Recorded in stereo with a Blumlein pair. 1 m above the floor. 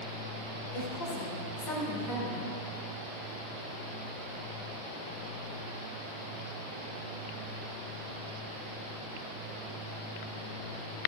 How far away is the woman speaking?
About 4.5 m.